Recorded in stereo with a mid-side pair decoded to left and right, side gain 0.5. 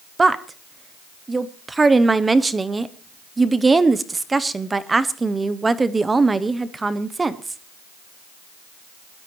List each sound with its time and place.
0.2 s a woman speaking: 20° right, 0.8 m